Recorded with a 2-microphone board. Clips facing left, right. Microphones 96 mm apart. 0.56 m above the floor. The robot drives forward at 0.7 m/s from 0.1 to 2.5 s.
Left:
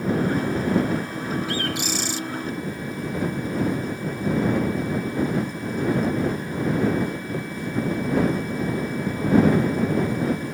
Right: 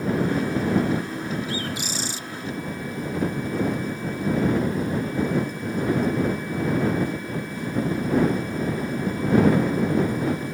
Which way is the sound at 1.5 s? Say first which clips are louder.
Left 3 dB; 80° left.